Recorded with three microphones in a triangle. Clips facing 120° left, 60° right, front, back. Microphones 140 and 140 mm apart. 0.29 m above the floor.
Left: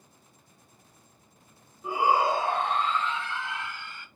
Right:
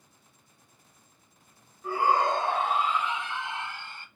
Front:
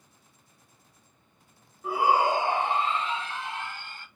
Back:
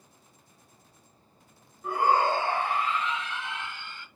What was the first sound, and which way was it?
A shout, 80° left.